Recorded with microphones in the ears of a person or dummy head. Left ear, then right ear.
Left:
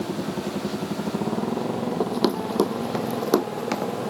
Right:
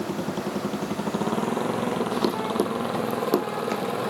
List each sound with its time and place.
0.0 s a motorcycle: 55° right (ahead or behind); by 4.1 s 50° right (ahead or behind)
2.0 s running footsteps: 10° left (ahead or behind); by 3.9 s 15° left (ahead or behind)